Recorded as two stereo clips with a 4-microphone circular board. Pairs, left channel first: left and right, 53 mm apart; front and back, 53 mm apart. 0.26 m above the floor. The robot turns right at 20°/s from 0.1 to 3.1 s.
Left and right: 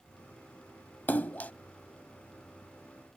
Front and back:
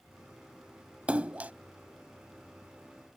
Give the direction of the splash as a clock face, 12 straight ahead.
8 o'clock.